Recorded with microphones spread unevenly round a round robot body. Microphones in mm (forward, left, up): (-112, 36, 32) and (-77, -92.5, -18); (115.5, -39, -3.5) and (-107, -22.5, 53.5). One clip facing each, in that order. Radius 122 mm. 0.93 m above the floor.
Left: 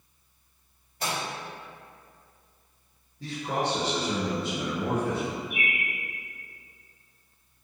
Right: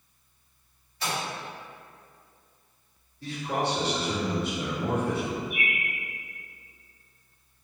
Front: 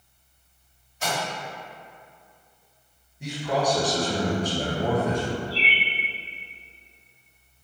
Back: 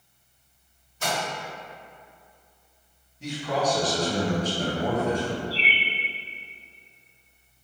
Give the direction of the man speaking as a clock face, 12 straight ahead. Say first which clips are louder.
Even, front 1 dB; 10 o'clock.